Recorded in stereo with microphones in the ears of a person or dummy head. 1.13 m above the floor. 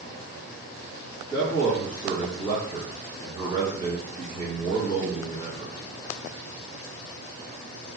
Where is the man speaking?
20° right (ahead or behind), 1.6 m.